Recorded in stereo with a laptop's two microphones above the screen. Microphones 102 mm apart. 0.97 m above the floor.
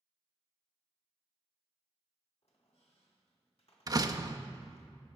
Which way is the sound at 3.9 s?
35° right (ahead or behind).